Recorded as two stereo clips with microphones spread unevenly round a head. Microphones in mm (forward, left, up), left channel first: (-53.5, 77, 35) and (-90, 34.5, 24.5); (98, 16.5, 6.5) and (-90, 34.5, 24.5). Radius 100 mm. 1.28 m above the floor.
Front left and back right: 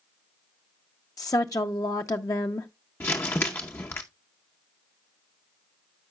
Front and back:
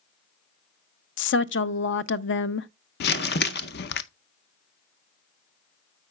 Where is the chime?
I don't hear a chime.